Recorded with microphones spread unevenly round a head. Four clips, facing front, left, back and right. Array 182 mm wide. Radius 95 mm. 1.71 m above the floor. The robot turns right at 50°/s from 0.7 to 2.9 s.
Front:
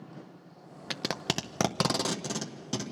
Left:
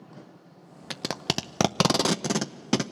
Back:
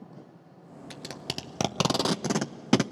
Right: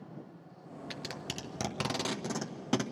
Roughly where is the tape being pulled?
Ahead left.